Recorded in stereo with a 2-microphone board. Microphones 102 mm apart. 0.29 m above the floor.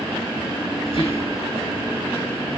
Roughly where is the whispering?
Left.